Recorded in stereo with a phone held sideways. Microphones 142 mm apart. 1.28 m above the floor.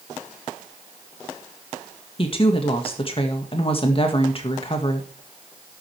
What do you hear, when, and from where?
2.2 s a woman speaking: 40° left (ahead or behind), 1.9 m